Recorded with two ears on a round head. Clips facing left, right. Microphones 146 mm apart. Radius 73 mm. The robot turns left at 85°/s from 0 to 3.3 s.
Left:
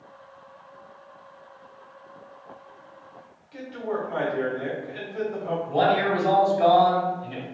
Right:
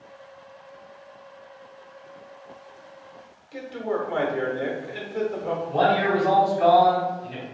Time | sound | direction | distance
3.5 | a man speaking | 60° right (ahead or behind) | 1.1 m
5.7 | a man speaking | 30° left (ahead or behind) | 1.2 m